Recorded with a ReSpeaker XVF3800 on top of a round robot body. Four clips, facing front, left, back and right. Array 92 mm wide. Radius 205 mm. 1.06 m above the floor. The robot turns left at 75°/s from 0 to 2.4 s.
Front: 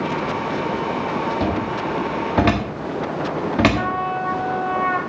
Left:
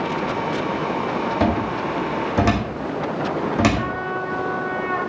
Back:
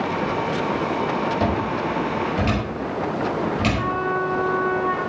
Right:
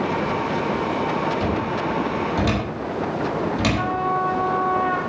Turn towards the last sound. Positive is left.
turn(degrees=-20)